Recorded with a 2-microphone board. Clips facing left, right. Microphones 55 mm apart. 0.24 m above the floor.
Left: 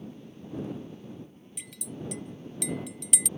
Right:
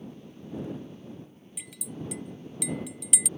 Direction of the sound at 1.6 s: 5° right (ahead or behind).